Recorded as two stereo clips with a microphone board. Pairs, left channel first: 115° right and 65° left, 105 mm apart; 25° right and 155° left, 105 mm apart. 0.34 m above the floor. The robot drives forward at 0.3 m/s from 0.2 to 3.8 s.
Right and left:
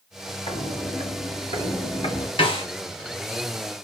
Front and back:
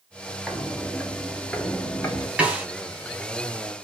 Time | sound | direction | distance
0.5 | footsteps | 115° right | 2.5 m
2.4 | a snare drum | 125° right | 1.7 m